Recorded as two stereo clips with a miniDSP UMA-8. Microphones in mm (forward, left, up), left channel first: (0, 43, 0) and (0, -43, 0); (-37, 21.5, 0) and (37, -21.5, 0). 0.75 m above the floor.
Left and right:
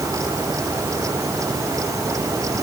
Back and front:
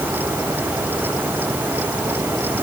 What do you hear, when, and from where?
Only background noise.